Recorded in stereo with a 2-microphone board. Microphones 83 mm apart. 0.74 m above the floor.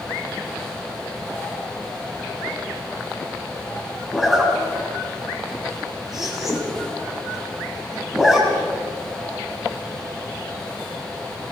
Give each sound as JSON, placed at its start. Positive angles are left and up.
{"t": 4.1, "sound": "a zipper", "side_deg": -5, "distance_m": 6.5}